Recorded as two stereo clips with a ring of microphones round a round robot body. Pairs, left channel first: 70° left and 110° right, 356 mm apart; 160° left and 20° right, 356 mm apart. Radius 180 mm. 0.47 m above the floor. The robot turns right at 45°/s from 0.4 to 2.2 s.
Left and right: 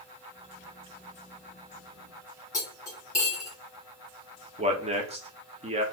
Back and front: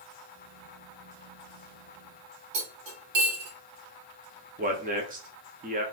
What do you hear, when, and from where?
2.5 s cutlery clinking: 15° right, 2 m
4.6 s a man speaking: 60° right, 0.8 m